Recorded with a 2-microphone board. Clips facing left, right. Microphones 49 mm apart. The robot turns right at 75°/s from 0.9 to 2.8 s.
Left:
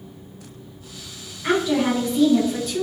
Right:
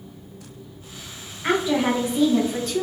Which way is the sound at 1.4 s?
20° right (ahead or behind).